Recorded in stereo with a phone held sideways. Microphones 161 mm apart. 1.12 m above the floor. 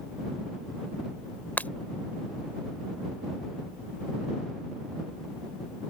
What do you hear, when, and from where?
1.6 s breaking glass: 10° left (ahead or behind)